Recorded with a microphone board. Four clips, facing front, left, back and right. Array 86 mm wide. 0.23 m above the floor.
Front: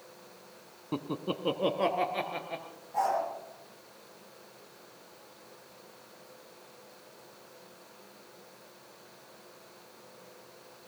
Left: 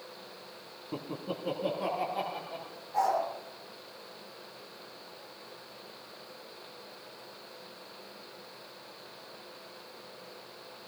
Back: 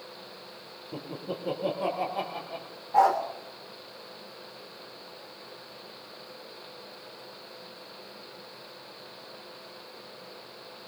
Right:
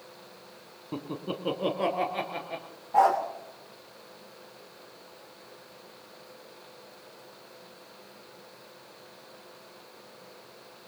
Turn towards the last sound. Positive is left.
turn(degrees=-135)